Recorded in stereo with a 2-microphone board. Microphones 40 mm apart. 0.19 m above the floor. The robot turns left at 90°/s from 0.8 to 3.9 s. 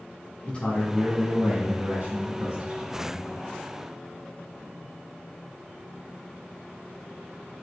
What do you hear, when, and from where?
0.5 s a man speaking: 50° left, 1.9 m; by 3.3 s 170° right, 1.9 m